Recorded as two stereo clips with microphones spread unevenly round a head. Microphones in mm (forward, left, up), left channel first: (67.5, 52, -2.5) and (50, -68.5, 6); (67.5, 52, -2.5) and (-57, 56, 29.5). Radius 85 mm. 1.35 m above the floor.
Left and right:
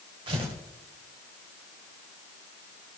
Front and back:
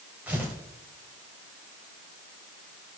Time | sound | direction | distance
0.3 | tearing paper | 120° right | 1.4 m